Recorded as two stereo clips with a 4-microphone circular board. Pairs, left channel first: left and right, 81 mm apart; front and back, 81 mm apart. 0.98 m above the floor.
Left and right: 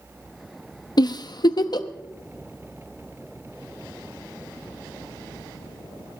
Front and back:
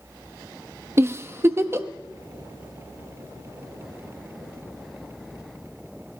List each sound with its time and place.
1.0 s a giggle: 120° left, 0.6 m